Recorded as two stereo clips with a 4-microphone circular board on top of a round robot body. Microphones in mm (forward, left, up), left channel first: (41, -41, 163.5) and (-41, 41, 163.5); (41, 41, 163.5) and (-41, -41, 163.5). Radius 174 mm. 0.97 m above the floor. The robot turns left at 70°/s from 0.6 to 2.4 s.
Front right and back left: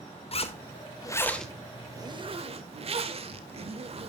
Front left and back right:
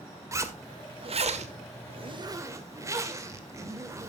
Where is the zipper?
70° right, 1.9 m; by 4.1 s 160° left, 1.9 m.